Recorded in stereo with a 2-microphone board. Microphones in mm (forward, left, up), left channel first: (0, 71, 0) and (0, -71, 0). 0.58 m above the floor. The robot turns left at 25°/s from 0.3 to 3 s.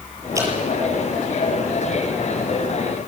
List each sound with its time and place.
0.3 s dripping: 20° right (ahead or behind), 7 m